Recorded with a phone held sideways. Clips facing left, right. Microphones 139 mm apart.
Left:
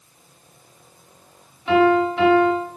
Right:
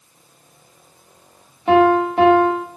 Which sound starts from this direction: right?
A piano, at 1.7 s.